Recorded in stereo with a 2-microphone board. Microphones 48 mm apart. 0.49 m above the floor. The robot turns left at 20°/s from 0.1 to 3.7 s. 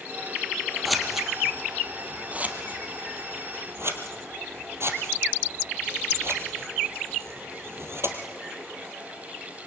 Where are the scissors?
Centre (ahead or behind), 3 m; by 8.2 s 55° right (ahead or behind), 3 m.